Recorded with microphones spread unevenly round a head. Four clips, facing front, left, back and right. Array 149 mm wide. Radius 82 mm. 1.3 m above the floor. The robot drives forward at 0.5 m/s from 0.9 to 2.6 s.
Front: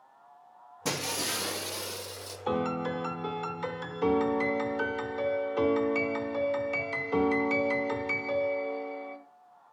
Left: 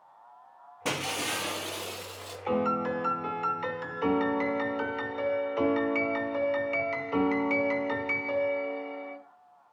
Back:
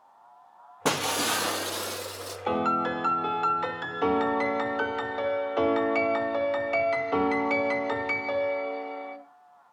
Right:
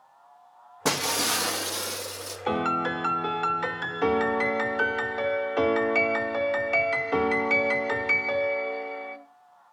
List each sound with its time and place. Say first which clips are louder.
0.8 s breaking glass: right 5 dB, back 7 dB; 145° right, 1.4 m; by 2.4 s 155° right, 2 m
2.5 s a piano: right 1 dB, back 4 dB; 95° right, 1.2 m; by 9.2 s 100° right, 1.2 m